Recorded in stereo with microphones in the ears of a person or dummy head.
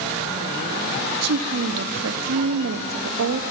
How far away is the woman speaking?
About 0.8 m.